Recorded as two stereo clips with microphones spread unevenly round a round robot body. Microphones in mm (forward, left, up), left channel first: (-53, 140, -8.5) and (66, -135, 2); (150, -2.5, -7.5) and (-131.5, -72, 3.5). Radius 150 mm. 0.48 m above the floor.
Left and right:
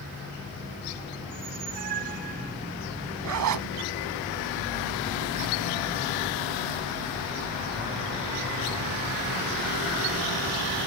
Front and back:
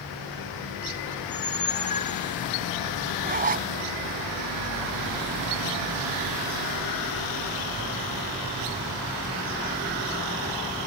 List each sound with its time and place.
1.2 s a squeak: 50° right
3.2 s a zipper: 105° right